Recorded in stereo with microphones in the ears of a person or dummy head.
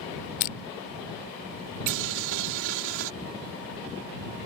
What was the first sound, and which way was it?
Crushing, 50° left (ahead or behind).